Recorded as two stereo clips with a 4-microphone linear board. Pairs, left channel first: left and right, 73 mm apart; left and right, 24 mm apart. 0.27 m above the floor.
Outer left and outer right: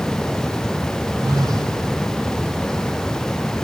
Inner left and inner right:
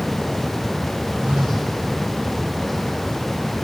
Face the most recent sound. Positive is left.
turn(degrees=-60)  # may be behind; listen again after turning